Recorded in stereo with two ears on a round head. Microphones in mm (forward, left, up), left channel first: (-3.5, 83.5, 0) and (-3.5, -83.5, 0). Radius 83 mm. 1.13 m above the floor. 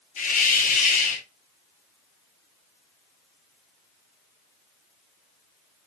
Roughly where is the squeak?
I don't hear a squeak.